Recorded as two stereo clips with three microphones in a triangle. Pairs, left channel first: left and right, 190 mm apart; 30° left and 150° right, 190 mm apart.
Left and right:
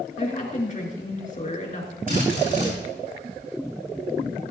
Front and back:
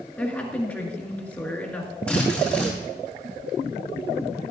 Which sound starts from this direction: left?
A woman speaking, at 0.2 s.